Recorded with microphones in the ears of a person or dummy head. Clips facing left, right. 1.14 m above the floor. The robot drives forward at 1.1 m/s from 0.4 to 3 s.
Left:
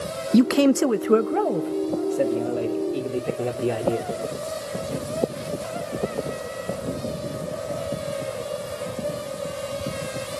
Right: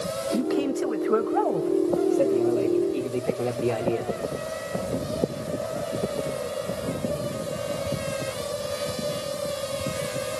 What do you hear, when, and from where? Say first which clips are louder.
0.3 s a man speaking: left 9 dB; 70° left (ahead or behind), 0.5 m; by 4.1 s 10° left (ahead or behind), 2.5 m